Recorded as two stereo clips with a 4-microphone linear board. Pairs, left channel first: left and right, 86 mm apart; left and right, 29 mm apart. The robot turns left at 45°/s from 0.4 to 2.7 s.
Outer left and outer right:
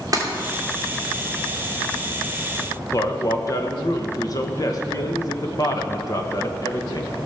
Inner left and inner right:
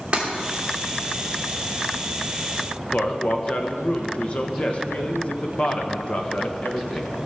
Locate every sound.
0.1 s breaking glass: 45° right (ahead or behind), 2.5 m
2.9 s a man speaking: 45° left (ahead or behind), 1.2 m